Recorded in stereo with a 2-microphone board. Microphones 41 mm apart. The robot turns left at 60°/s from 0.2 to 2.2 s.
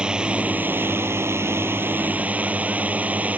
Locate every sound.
0.0 s a drone: 20° right; by 3.4 s 140° right